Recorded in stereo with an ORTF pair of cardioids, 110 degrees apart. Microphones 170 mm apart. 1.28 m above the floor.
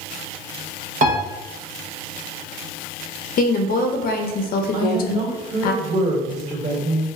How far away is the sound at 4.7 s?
About 1.6 m.